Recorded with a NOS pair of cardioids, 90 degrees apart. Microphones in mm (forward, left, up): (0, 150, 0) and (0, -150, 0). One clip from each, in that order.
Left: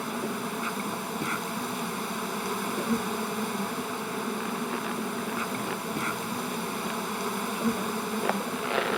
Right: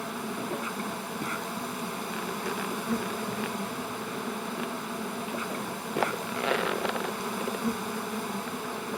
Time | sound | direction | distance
0.0 | an insect | 25° left | ?